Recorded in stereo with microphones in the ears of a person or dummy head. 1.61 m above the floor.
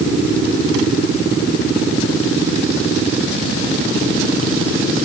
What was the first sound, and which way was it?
Only background noise.